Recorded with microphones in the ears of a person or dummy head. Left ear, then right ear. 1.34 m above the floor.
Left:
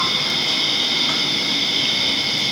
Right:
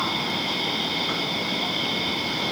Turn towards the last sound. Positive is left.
turn(degrees=25)  # may be behind; listen again after turning